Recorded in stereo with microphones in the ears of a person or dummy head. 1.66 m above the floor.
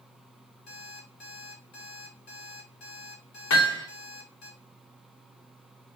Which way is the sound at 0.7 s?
65° left (ahead or behind).